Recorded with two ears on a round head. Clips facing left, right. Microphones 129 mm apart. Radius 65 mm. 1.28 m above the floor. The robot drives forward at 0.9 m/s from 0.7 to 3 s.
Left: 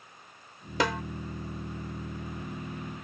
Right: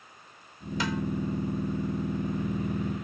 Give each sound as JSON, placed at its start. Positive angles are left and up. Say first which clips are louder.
{"t": 0.8, "sound": "a snare drum", "louder": "left 2 dB", "side_deg": 55}